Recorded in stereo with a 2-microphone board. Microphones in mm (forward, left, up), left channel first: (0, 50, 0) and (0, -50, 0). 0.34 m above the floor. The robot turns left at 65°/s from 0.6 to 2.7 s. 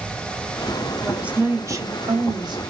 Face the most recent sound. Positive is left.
turn(degrees=-110)